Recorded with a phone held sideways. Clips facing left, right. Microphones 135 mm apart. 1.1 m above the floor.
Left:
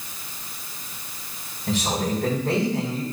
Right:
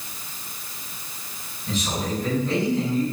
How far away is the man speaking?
About 3.5 m.